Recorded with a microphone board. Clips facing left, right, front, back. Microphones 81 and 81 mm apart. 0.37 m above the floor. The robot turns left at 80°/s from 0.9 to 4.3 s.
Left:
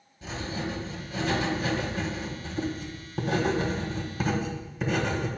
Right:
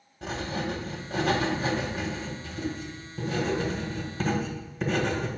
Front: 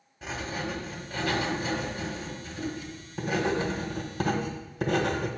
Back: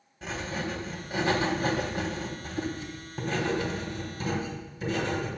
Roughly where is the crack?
I don't hear a crack.